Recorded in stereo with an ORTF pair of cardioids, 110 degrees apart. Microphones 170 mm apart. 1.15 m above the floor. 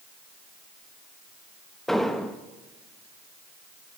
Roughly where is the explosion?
Ahead.